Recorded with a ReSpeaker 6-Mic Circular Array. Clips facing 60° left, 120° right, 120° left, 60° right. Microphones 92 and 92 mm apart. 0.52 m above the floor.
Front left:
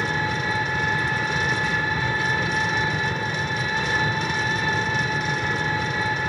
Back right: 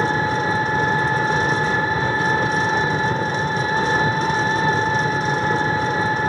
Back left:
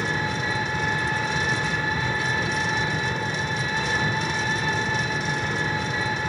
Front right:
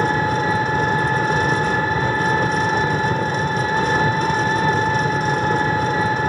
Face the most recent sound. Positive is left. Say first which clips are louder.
# back right 6 dB, front right 8 dB
turn(degrees=-75)